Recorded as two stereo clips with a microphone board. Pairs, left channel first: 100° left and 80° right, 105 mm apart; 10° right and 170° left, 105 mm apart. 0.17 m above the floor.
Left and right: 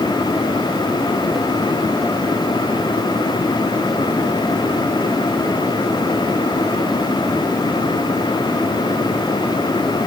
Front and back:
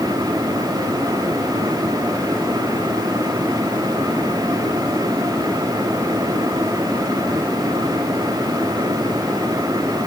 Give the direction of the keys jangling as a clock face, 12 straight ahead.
I don't hear keys jangling.